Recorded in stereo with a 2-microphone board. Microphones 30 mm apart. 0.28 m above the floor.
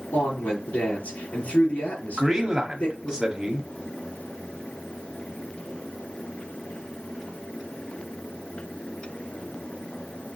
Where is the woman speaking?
55° left (ahead or behind), 5 m.